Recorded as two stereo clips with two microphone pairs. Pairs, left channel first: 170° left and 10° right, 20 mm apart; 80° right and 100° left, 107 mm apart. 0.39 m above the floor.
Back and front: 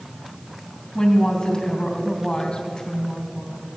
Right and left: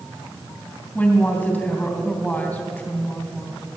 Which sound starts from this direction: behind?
A woman speaking, at 0.9 s.